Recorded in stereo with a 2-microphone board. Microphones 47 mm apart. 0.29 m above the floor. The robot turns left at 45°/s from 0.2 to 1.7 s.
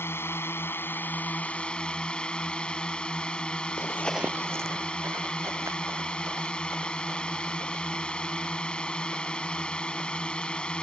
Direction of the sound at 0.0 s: 90° left.